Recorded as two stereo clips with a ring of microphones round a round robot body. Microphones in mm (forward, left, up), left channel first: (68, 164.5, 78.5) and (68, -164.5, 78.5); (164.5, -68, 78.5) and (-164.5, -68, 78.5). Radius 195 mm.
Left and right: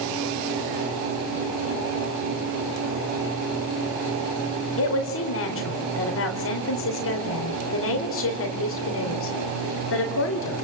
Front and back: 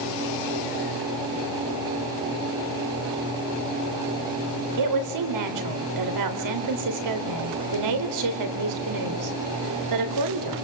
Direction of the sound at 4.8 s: 145° left.